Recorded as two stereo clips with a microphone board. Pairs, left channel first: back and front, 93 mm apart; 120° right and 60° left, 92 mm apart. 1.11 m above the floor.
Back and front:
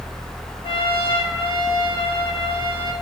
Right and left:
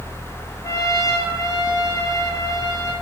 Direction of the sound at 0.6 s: 175° right.